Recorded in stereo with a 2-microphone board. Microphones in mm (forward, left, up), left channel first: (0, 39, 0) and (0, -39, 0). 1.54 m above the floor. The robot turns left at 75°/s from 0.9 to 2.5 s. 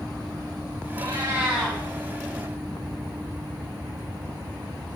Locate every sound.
1.0 s a cat meowing: 125° right, 5.5 m; by 1.8 s 170° left, 5.5 m